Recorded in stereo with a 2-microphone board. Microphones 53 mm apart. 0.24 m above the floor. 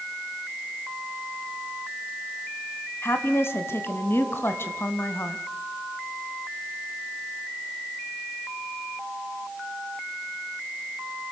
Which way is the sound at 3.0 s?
50° left (ahead or behind).